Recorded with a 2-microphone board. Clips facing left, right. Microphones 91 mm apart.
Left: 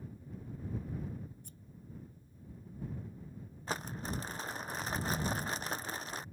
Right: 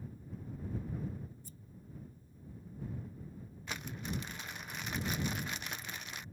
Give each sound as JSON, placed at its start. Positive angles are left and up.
{"t": 1.4, "sound": "scissors", "side_deg": 55}
{"t": 3.7, "sound": "crumpling", "side_deg": 35}